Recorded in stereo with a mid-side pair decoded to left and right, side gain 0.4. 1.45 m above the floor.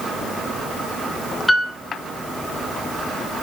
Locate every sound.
1.5 s a piano: 20° left, 2.5 m